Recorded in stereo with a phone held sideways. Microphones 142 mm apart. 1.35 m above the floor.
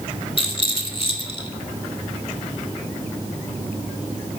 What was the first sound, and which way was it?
A rattle, 40° left (ahead or behind).